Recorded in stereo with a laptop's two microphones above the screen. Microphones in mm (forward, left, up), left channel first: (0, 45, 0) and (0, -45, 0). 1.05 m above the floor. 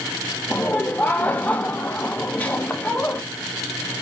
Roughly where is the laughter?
Centre.